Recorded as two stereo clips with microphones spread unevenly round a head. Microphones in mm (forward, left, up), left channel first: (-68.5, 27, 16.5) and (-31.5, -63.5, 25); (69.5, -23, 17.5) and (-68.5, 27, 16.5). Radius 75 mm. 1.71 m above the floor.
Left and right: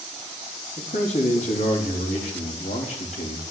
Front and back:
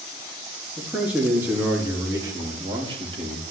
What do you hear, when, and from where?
0.8 s a man speaking: 75° left, 4 m; by 3.4 s 110° left, 3 m